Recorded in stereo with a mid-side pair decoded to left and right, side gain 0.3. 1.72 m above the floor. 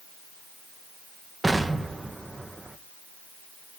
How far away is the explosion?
About 1.7 m.